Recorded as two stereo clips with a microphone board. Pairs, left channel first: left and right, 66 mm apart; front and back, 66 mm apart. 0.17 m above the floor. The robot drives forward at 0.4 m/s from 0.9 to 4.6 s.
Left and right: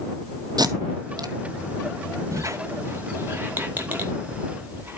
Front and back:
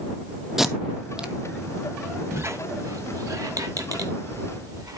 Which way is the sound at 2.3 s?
130° right.